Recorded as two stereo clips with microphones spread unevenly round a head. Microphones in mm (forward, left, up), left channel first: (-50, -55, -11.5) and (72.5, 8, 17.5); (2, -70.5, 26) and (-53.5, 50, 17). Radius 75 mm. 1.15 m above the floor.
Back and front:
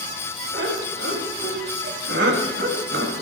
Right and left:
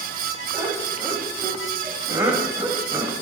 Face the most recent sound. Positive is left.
turn(degrees=40)